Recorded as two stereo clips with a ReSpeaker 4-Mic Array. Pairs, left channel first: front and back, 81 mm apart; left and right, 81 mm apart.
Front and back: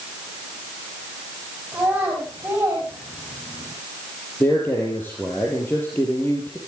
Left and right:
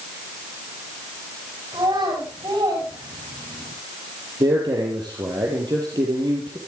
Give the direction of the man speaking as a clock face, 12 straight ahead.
2 o'clock.